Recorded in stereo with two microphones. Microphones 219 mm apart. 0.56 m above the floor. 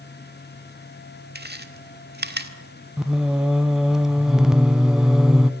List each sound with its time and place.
1.4 s chewing: 50° right (ahead or behind), 1.6 m
3.0 s singing: 5° right (ahead or behind), 0.7 m